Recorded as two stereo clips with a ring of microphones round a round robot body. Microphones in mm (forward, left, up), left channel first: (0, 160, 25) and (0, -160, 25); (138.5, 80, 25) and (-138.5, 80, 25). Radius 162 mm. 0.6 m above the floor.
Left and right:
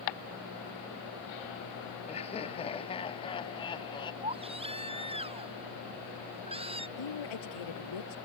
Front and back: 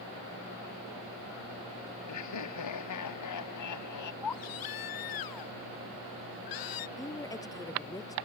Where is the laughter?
20° left; by 4.1 s 15° left.